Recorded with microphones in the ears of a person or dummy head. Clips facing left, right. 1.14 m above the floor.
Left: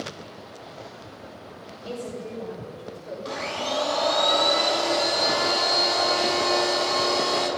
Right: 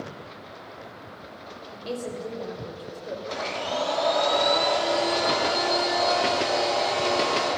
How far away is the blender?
About 7 m.